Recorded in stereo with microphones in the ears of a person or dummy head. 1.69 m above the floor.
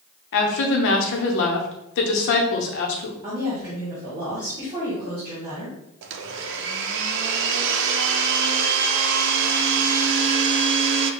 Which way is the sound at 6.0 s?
70° right (ahead or behind).